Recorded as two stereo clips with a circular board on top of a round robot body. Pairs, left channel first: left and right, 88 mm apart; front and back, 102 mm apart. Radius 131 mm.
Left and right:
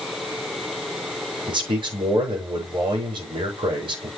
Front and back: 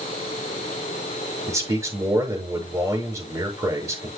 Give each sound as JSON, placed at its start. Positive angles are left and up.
{"t": 1.5, "sound": "a man speaking", "azimuth_deg": -120, "distance_m": 6.0}